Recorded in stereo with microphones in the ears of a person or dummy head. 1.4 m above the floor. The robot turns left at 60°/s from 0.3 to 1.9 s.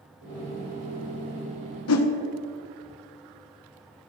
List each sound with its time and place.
1.9 s a whoosh: 80° left, 1.1 m; by 2.1 s 75° left (ahead or behind), 1.1 m